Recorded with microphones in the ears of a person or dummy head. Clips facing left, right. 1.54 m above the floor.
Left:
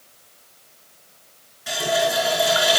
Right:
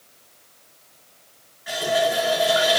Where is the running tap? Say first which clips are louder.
Even; 45° left (ahead or behind), 7 m.